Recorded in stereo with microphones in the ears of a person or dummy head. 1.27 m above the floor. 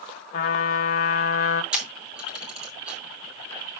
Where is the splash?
I don't hear a splash.